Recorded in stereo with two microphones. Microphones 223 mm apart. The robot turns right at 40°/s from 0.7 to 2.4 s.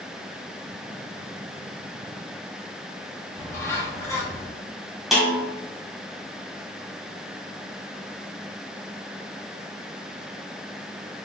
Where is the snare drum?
Centre (ahead or behind), 1.9 m.